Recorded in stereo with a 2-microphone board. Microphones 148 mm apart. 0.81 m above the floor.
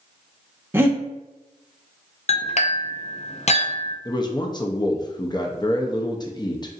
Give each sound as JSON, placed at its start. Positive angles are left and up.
{"t": 0.7, "sound": "breathing", "side_deg": -15, "distance_m": 0.9}
{"t": 2.3, "sound": "a clink", "side_deg": 50, "distance_m": 0.5}
{"t": 4.0, "sound": "a man speaking", "side_deg": 30, "distance_m": 0.5}